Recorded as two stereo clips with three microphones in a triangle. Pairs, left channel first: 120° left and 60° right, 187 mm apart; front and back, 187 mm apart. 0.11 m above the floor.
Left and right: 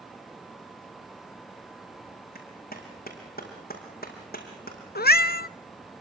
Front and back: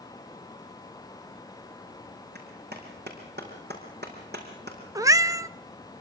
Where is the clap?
155° left, 5.5 m.